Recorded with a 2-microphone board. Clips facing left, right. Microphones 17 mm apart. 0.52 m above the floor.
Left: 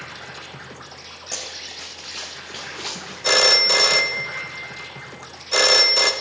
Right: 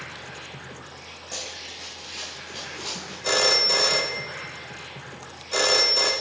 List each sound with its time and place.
0.0 s an insect: 45° left (ahead or behind), 1.9 m
1.3 s running footsteps: 40° left (ahead or behind), 1.6 m; by 3.1 s 45° left (ahead or behind), 3 m
3.2 s a phone ringing: 25° left (ahead or behind), 0.7 m